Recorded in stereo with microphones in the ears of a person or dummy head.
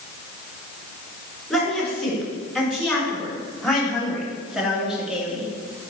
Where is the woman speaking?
5° left (ahead or behind), 4.5 m; by 5.5 s centre (ahead or behind), 2 m.